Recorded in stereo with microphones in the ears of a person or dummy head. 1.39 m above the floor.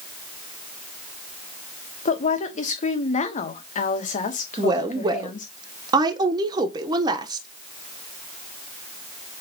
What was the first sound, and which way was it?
A woman speaking, 40° left (ahead or behind).